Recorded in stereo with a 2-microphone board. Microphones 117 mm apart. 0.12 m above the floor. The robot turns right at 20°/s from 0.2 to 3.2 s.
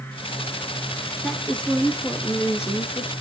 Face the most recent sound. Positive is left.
turn(degrees=45)